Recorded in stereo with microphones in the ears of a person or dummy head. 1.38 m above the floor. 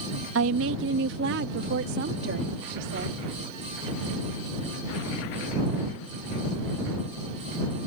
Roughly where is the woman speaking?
Right.